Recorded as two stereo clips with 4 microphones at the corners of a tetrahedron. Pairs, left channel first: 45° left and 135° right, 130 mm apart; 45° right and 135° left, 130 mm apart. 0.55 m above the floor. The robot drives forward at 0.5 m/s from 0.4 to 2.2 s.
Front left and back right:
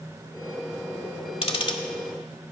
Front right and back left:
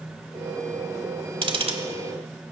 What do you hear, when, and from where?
1.4 s ticking: 90° left, 1.1 m; by 1.8 s 100° left, 1.1 m